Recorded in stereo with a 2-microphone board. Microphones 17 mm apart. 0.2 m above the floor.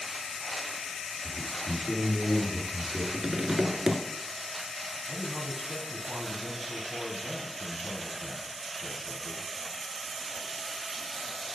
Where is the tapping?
45° right (ahead or behind), 0.9 m.